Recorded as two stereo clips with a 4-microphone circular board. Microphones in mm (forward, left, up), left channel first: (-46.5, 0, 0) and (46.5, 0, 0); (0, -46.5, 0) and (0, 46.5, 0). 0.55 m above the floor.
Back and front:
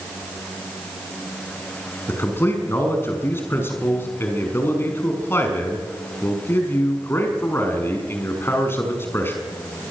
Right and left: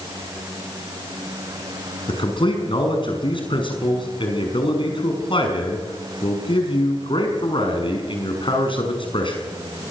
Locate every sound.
2.1 s a man speaking: 115° right, 6 m